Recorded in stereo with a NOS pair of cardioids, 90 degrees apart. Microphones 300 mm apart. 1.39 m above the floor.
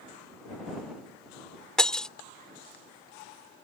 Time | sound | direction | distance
1.8 | breaking glass | straight ahead | ?